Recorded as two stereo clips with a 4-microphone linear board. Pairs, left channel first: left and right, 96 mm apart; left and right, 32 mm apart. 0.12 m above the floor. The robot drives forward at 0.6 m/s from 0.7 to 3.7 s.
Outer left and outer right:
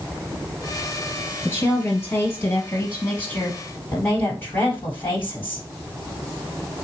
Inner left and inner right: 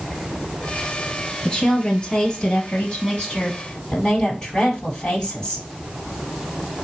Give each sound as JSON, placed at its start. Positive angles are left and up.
{"t": 1.4, "sound": "a woman speaking", "side_deg": 25, "distance_m": 2.5}